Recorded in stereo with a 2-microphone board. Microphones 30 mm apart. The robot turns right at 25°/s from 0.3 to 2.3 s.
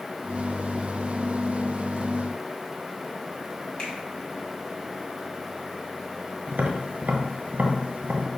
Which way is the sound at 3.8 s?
40° left (ahead or behind).